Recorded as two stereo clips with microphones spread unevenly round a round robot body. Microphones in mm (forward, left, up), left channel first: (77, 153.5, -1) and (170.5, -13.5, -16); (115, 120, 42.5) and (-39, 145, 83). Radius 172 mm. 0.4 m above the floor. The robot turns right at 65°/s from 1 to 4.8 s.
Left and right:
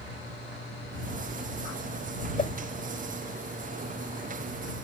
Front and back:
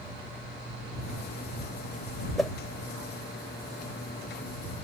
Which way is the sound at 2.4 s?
70° left.